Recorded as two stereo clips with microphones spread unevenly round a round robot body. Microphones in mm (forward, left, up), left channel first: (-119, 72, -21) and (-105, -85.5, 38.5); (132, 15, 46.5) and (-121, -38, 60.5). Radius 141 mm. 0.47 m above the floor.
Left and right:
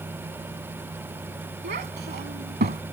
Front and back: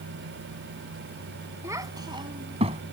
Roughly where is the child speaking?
Right.